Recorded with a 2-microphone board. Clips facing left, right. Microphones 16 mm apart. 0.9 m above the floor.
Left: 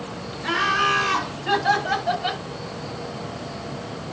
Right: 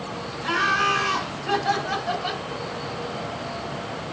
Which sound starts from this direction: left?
Laughter, at 0.4 s.